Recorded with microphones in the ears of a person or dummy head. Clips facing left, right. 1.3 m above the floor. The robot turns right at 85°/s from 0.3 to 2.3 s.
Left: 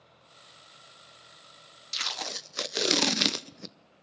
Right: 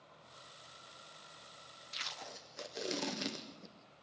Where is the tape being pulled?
60° left, 0.6 m; by 3.8 s 90° left, 0.6 m.